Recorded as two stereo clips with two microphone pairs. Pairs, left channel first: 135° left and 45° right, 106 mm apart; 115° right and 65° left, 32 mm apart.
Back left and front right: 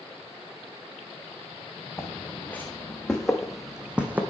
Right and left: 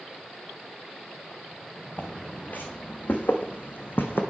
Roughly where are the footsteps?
Behind right.